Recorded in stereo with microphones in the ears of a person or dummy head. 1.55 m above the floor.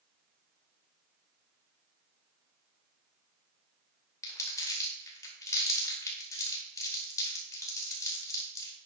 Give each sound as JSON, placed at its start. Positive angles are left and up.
{"t": 4.2, "sound": "crumpling", "side_deg": 25, "distance_m": 2.5}